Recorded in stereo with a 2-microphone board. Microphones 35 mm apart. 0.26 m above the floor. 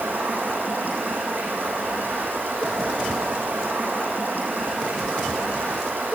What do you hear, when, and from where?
0.0 s running water: 65° right (ahead or behind), 5.5 m